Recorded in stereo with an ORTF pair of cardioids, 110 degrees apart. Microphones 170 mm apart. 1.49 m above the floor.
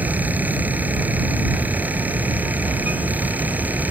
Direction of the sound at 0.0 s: 10° right.